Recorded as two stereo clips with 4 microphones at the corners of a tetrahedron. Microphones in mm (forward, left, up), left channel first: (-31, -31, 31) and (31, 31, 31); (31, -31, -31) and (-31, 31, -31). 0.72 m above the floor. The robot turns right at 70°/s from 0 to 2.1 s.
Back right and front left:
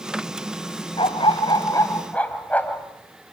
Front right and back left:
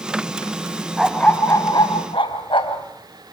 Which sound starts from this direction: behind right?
A dog barking, at 1.0 s.